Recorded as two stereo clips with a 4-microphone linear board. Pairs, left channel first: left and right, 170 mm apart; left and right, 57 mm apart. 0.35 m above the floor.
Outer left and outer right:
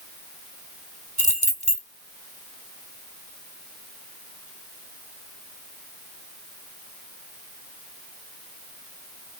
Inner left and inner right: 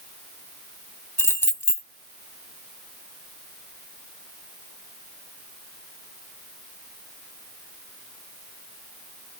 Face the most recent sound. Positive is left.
turn(degrees=45)  # may be behind; listen again after turning